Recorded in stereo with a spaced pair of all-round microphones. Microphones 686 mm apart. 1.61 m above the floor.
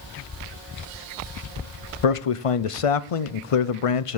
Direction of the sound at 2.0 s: 55° left (ahead or behind).